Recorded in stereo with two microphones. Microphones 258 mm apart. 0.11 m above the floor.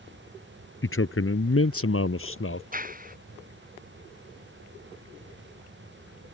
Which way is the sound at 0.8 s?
50° left (ahead or behind).